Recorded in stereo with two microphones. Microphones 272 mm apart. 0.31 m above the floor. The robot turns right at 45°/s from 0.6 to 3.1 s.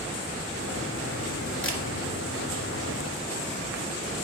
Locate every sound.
1.6 s a camera shutter: 50° left (ahead or behind), 1.8 m; by 1.8 s 60° left (ahead or behind), 1.8 m